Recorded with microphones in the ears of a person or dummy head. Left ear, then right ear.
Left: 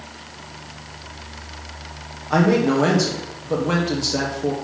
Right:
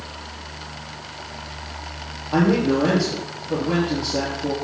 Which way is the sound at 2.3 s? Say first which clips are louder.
Left 2 dB; 80° left.